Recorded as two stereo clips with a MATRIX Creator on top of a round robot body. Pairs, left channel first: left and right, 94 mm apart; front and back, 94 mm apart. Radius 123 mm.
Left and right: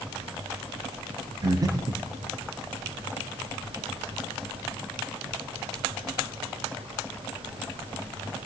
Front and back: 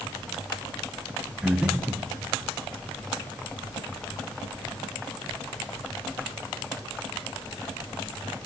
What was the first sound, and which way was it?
Breathing, 105° right.